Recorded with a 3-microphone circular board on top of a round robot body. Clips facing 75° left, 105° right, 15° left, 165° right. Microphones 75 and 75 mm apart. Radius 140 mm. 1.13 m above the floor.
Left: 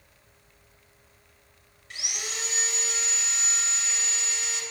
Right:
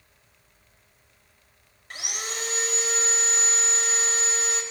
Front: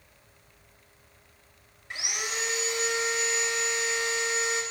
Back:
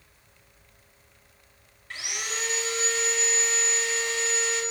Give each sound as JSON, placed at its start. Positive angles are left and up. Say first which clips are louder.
{"t": 1.9, "sound": "sawing", "louder": "right 3 dB, front 1 dB", "azimuth_deg": -60, "distance_m": 2.5}